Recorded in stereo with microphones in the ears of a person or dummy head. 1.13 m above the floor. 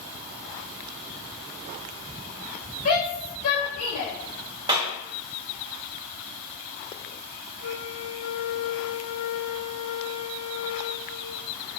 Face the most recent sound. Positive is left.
turn(degrees=60)  # may be behind; listen again after turning